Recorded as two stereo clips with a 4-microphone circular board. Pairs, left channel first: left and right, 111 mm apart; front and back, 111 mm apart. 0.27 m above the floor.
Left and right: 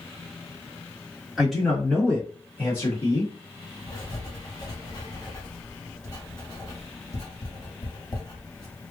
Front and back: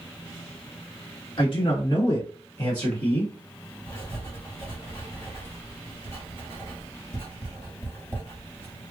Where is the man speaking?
5° right, 1.4 m; by 3.3 s 70° left, 1.4 m.